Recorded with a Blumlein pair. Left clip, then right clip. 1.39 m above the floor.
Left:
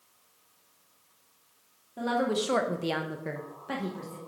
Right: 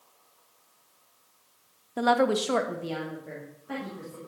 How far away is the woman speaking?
About 1.1 m.